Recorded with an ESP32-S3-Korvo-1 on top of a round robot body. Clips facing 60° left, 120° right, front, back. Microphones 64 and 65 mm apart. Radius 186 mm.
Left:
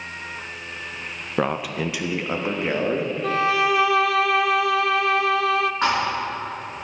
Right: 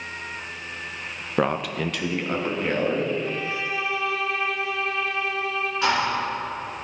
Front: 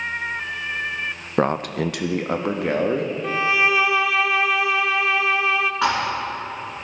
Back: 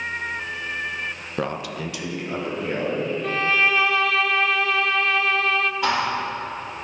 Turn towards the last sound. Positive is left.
turn(degrees=10)